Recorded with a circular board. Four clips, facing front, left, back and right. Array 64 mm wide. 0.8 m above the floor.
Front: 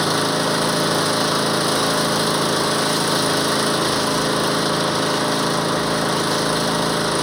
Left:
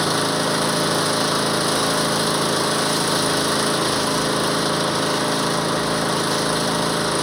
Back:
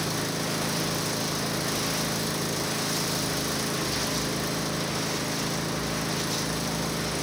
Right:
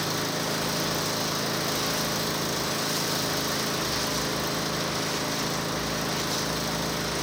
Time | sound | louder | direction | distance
0.0 | an engine running | left 9 dB, front 11 dB | 35° left | ?